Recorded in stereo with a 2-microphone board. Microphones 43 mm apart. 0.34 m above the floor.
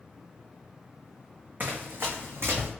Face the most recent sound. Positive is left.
turn(degrees=-75)  # may be behind; listen again after turning